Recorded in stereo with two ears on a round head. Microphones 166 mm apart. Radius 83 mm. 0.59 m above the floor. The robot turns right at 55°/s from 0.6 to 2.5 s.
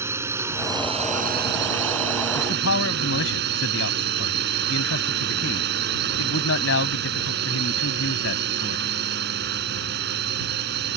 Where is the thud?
No thud in this recording.